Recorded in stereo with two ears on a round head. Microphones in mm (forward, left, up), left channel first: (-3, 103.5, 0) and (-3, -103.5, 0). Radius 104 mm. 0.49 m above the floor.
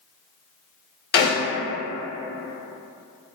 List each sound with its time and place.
1.1 s a snare drum: 40° left (ahead or behind), 1.1 m